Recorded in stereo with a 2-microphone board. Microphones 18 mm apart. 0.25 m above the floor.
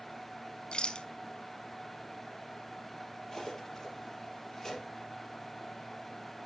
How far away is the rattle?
About 0.7 m.